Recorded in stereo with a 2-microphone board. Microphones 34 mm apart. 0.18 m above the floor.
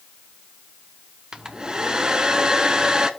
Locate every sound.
1.3 s a hair dryer: 25° right (ahead or behind), 0.7 m